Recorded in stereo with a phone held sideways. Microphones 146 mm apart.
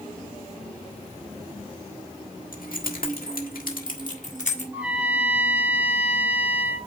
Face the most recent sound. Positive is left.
turn(degrees=-10)  # may be behind; listen again after turning